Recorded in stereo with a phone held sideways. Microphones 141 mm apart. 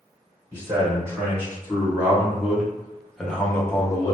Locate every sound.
0.5 s a man speaking: 20° right (ahead or behind), 2.0 m; by 4.2 s 30° left (ahead or behind), 0.7 m